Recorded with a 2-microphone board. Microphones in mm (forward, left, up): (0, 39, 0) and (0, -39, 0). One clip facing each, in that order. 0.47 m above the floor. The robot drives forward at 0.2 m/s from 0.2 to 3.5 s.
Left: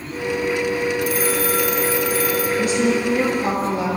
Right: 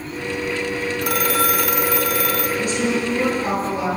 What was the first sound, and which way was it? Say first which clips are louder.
A phone ringing: even; 75° right (ahead or behind).